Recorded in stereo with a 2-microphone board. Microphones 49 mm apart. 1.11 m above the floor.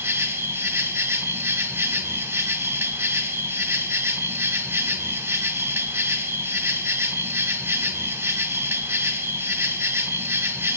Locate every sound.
0.0 s an insect: 60° right (ahead or behind), 0.8 m